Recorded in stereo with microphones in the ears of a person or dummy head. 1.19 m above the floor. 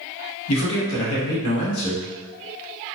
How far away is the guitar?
I don't hear a guitar.